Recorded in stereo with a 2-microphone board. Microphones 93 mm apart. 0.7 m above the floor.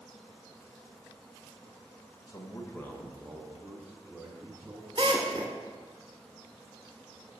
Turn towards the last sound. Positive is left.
turn(degrees=-60)  # may be behind; listen again after turning